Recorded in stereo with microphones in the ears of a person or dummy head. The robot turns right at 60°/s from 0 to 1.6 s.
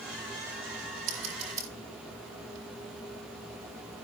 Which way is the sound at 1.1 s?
50° right (ahead or behind).